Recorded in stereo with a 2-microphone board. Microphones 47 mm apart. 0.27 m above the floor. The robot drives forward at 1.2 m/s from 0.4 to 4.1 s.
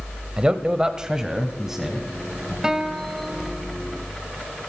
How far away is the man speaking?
About 1.0 m.